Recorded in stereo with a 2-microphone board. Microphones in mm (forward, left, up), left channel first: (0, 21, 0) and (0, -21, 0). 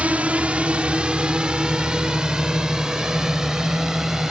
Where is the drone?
35° right (ahead or behind); by 4.3 s 15° right (ahead or behind).